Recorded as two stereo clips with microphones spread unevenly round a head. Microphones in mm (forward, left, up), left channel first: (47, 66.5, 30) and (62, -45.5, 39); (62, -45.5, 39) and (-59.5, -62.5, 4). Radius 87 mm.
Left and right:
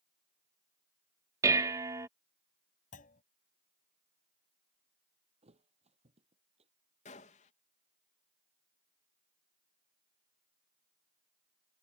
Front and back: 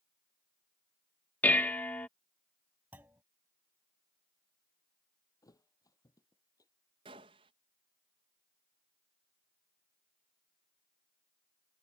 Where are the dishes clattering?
40° right.